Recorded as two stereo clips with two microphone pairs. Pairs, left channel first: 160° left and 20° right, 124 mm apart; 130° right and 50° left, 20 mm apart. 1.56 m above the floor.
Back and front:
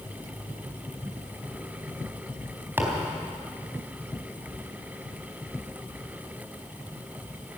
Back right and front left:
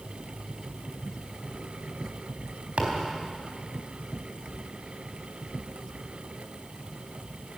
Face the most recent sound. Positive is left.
turn(degrees=50)